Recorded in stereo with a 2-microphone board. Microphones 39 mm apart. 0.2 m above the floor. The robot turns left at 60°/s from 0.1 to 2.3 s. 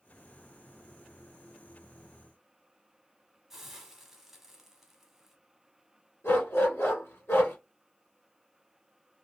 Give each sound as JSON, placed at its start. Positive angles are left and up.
{"t": 3.5, "sound": "a hiss", "side_deg": -10, "distance_m": 0.8}
{"t": 6.2, "sound": "a dog barking", "side_deg": 75, "distance_m": 2.0}